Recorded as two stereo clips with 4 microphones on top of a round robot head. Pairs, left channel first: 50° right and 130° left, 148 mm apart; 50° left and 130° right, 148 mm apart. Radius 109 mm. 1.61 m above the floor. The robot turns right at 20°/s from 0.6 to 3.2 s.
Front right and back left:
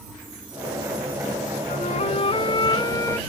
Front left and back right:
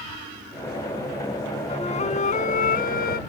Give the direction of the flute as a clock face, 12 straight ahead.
12 o'clock.